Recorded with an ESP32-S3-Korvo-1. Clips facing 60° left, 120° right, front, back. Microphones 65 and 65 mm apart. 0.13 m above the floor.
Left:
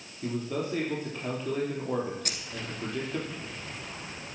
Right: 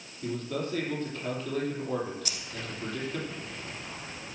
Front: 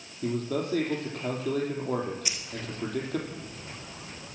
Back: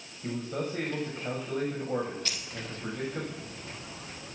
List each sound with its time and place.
0.2 s a man speaking: 15° right, 4.5 m
2.2 s keys jangling: 70° left, 1.3 m